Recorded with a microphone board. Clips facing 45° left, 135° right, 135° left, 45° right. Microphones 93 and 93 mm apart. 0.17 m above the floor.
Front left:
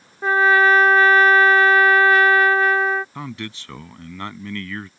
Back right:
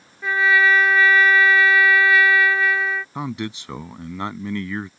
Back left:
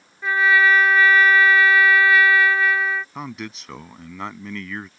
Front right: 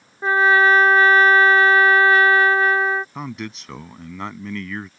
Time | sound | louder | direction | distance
0.2 | a trumpet | front left 3 dB, front right 3 dB | 5° left | ?
3.1 | a man speaking | back right 4 dB, front right 2 dB | 135° right | ?